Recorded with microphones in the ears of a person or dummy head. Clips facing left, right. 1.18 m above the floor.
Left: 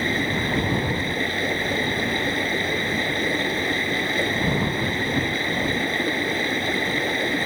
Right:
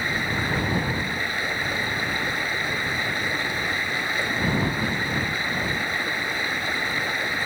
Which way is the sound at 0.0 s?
20° left (ahead or behind).